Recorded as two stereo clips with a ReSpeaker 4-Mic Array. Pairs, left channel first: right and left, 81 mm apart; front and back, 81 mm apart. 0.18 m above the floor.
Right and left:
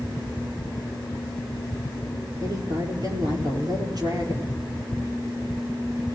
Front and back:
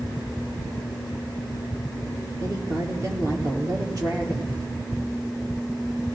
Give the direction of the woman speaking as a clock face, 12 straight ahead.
8 o'clock.